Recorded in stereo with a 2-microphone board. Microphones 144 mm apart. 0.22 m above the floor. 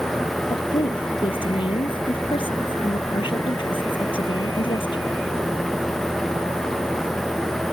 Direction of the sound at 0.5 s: 35° left (ahead or behind).